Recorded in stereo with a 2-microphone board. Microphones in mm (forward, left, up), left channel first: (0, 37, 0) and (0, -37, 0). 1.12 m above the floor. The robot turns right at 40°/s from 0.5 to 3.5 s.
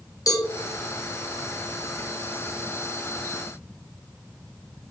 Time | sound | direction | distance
0.3 | a cowbell | 55° left (ahead or behind) | 0.6 m